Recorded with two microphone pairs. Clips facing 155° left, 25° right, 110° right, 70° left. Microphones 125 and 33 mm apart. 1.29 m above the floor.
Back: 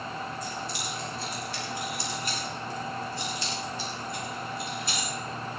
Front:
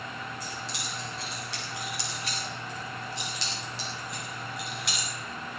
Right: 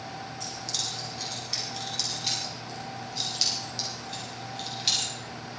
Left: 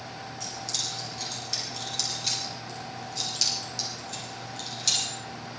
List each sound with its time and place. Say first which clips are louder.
0.4 s keys jangling: back 3 dB, left 1 dB; 20° right, 8 m; by 5.1 s 40° right, 6 m